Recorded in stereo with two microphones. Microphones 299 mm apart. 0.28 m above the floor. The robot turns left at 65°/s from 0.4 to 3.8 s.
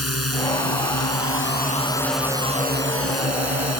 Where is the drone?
115° left; by 3.8 s 105° right.